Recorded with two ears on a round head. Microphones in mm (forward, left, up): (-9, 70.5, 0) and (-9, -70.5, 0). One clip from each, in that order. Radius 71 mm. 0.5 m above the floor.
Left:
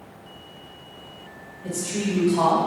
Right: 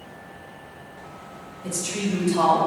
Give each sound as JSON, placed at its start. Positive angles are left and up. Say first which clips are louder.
{"t": 1.6, "sound": "a woman speaking", "louder": "even", "side_deg": -45, "distance_m": 2.5}